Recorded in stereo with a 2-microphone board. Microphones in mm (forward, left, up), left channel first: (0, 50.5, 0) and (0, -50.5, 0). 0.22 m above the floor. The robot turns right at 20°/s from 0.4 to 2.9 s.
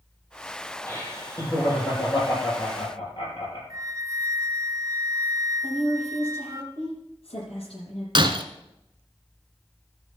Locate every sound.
0.9 s laughter: 20° left, 5.5 m; by 3.6 s 60° left, 5.5 m
3.7 s a flute: 35° right (ahead or behind), 0.7 m
5.6 s a woman speaking: 70° left (ahead or behind), 7 m
8.2 s breaking glass: 55° right (ahead or behind), 0.9 m